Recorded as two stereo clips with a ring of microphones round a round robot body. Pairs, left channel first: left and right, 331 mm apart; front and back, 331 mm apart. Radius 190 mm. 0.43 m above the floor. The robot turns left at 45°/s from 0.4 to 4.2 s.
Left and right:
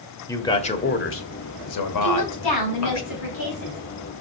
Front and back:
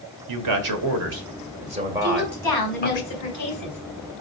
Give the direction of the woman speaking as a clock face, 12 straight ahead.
9 o'clock.